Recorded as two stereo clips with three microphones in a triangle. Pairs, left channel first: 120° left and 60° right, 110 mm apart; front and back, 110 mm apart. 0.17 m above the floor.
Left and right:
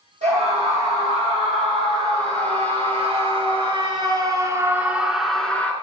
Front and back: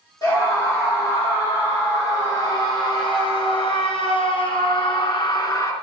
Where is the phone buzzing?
No phone buzzing in this recording.